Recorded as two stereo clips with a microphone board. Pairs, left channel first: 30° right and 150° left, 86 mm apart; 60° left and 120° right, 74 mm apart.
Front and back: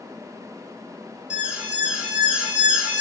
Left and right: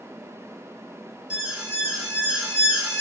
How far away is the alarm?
About 0.8 m.